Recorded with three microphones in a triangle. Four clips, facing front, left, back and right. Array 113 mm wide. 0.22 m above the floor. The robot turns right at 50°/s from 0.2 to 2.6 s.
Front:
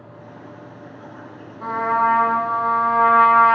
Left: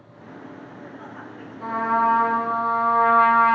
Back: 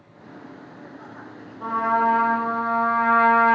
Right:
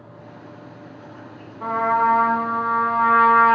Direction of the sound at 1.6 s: 80° right.